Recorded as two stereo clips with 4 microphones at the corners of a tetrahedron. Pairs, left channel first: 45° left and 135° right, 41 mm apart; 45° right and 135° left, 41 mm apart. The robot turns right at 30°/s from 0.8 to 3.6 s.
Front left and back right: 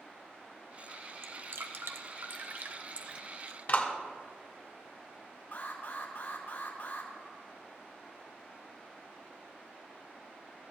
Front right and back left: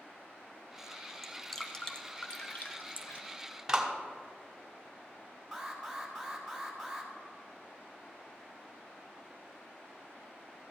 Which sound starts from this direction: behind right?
Dripping, at 1.2 s.